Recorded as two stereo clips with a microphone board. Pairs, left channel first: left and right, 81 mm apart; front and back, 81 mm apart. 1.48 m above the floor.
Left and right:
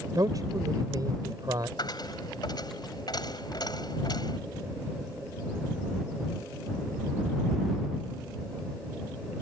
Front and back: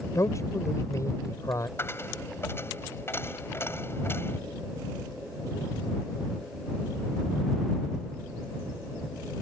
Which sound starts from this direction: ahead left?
A dropped coin, at 1.8 s.